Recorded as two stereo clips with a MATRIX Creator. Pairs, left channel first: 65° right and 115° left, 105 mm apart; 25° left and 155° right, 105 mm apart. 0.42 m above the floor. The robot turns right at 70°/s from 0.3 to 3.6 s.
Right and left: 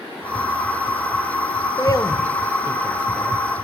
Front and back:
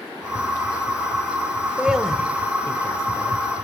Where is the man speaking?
90° right, 0.9 m; by 3.4 s 25° left, 0.9 m.